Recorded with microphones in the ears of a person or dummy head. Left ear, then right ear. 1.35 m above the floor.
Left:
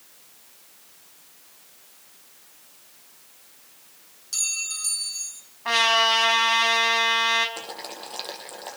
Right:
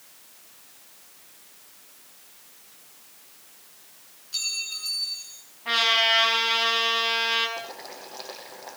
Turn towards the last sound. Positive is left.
turn(degrees=80)